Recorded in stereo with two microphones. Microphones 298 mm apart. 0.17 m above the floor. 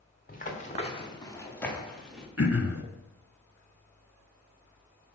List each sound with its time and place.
0.3 s running footsteps: 30° left (ahead or behind), 1.8 m; by 2.3 s centre (ahead or behind), 2 m
2.4 s throat clearing: 55° left (ahead or behind), 0.7 m